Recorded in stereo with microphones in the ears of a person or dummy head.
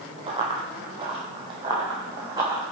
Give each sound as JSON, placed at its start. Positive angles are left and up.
{"t": 0.3, "sound": "running footsteps", "side_deg": -30, "distance_m": 1.8}